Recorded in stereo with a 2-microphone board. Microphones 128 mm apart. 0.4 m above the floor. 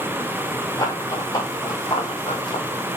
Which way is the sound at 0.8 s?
30° left (ahead or behind).